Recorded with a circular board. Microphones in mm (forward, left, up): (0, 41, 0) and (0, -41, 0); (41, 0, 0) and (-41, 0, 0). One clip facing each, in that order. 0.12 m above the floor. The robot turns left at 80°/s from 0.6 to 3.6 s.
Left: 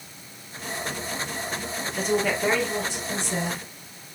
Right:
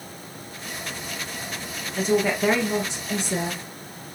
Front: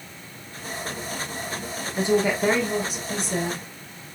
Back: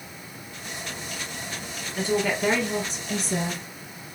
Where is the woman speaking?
5° left, 1.3 m; by 3.6 s 125° right, 1.3 m.